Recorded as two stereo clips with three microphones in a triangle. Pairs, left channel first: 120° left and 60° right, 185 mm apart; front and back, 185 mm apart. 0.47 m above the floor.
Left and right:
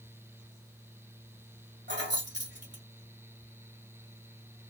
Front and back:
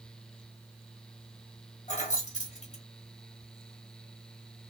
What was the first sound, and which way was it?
Keys jangling, 50° right.